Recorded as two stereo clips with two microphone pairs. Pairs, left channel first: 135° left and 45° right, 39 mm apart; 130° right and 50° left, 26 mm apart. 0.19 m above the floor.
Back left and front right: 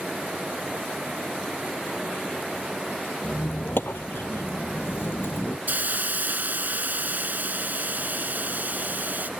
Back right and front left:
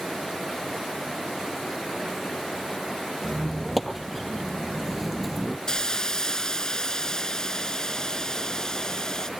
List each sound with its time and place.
3.2 s a squeak: 145° left
5.7 s a hiss: 75° right